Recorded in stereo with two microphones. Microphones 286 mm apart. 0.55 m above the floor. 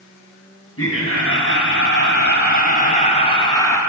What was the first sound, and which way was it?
Laughter, 50° left (ahead or behind).